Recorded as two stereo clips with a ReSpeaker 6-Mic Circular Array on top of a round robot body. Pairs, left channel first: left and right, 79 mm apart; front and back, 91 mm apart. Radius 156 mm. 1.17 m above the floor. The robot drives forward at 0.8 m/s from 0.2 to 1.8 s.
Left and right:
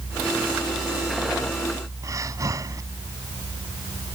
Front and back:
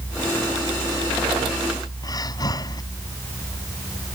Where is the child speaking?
I don't hear a child speaking.